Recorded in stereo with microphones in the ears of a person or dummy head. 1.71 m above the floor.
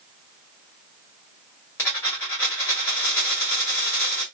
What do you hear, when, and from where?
1.8 s a dropped coin: 15° left (ahead or behind), 1.2 m